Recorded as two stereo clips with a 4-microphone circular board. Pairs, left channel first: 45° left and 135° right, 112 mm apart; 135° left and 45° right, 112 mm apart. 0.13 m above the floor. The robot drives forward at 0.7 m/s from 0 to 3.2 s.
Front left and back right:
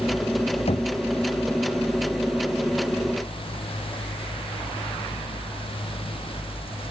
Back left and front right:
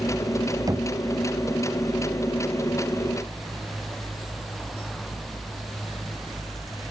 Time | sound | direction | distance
0.7 | knocking | 15° left | ?